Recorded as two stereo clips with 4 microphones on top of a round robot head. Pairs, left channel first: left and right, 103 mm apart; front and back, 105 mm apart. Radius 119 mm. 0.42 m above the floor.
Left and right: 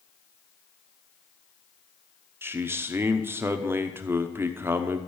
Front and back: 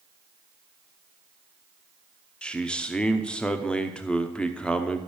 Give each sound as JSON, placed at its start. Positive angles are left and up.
{"t": 2.4, "sound": "a man speaking", "azimuth_deg": -65, "distance_m": 1.0}